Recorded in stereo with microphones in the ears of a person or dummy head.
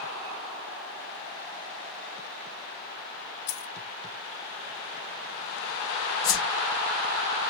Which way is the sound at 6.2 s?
25° left (ahead or behind).